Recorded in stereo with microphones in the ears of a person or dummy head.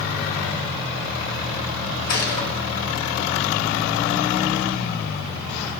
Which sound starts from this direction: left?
A gunshot, at 2.1 s.